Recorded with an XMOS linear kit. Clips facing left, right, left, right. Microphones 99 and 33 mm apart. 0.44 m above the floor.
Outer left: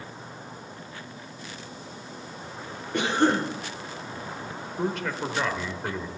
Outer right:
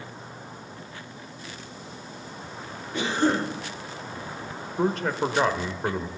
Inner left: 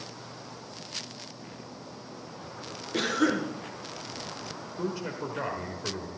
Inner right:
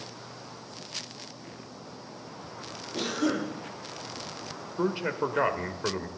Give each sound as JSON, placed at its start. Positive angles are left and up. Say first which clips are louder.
{"t": 2.9, "sound": "a cough", "louder": "outer left 1 dB, inner left 3 dB", "side_deg": 60, "distance_m": 5.5}
{"t": 4.8, "sound": "a man speaking", "louder": "outer right 4 dB, inner right 5 dB", "side_deg": -35, "distance_m": 1.2}